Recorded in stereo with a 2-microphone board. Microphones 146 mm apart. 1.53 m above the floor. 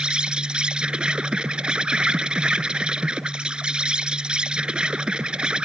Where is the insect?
5° right (ahead or behind).